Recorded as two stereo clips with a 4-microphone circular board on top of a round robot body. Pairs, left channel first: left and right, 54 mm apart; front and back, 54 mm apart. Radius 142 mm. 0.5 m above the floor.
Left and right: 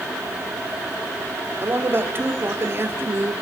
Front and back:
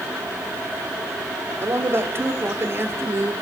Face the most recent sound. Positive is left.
turn(degrees=-135)